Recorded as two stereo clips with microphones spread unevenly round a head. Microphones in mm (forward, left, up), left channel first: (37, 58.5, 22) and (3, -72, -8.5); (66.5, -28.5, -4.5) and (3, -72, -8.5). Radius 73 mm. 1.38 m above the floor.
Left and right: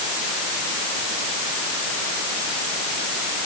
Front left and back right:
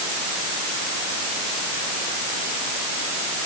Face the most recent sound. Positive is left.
No sound to turn to.